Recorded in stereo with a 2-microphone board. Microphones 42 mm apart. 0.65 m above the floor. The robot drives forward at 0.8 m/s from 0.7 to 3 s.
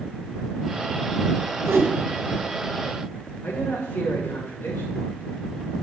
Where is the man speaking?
70° left (ahead or behind), 2.5 m.